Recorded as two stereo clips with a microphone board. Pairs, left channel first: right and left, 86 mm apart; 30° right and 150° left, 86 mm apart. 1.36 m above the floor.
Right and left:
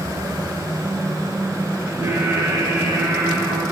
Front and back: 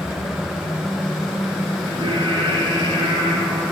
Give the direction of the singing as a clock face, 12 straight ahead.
7 o'clock.